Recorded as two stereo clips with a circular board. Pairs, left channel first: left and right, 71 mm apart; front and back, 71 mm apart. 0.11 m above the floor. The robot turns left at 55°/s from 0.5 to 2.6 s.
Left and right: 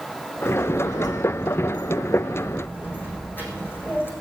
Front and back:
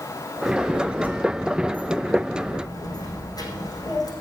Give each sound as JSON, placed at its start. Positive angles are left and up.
{"t": 0.5, "sound": "a child speaking", "azimuth_deg": 140, "distance_m": 5.0}